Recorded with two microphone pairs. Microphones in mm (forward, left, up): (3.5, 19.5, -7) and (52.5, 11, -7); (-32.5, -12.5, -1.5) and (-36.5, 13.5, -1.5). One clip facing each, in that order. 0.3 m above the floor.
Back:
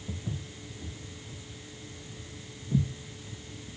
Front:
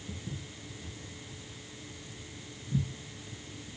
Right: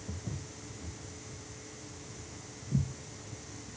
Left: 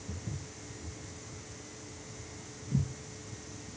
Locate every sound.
0.1 s footsteps: 150° right, 3 m; by 2.9 s 175° left, 3.5 m